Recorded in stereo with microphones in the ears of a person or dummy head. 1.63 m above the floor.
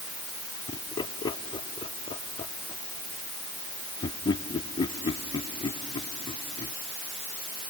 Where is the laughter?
30° left (ahead or behind).